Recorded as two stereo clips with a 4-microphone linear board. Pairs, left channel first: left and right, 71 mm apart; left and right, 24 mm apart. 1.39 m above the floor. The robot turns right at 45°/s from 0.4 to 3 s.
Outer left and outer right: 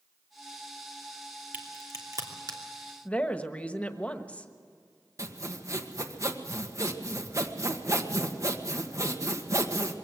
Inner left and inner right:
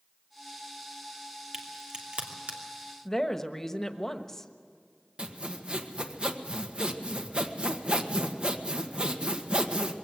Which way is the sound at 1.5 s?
25° right (ahead or behind).